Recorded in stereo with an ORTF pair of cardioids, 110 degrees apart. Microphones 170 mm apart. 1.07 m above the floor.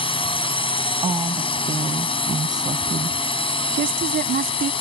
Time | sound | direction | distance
0.0 | a drone | 30° left | ?
1.0 | a woman speaking | 25° right | ?
3.7 | a woman speaking | 55° right | ?